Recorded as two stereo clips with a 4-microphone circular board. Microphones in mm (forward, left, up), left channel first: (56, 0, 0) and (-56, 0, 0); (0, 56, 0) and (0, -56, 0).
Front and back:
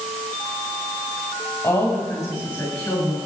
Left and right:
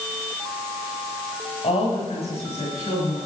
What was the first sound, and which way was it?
A woman speaking, 70° left.